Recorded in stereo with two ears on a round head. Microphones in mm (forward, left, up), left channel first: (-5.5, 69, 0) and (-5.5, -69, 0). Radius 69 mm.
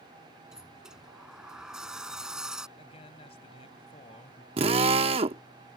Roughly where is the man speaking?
Left.